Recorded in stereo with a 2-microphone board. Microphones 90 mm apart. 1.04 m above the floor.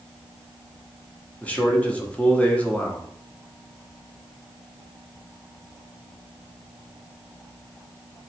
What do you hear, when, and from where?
1.4 s a man speaking: 15° left (ahead or behind), 0.8 m